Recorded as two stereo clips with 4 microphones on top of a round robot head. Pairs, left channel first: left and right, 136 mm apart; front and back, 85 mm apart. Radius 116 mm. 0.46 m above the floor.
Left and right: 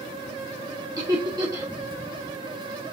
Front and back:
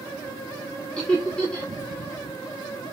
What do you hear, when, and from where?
1.0 s laughter: 65° right, 1.1 m